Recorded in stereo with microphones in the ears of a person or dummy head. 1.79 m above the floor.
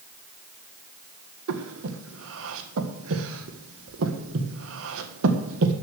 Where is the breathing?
75° right (ahead or behind), 1.7 m.